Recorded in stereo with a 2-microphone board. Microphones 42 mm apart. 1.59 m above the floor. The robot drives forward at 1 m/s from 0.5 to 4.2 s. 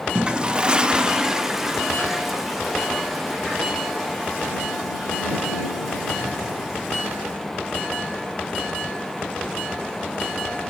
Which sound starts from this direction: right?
A toilet flushing, at 0.1 s.